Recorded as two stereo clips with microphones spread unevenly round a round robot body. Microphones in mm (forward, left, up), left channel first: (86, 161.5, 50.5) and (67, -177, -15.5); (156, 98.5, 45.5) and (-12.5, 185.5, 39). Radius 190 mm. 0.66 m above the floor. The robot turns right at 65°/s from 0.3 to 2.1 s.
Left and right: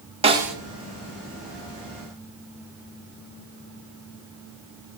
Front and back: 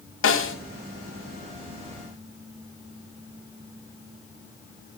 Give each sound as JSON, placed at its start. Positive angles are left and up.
{"t": 0.2, "sound": "a snare drum", "azimuth_deg": -20, "distance_m": 3.5}